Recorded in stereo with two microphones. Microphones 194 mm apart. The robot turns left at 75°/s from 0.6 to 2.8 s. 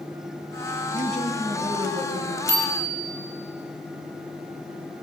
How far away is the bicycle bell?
About 4.5 m.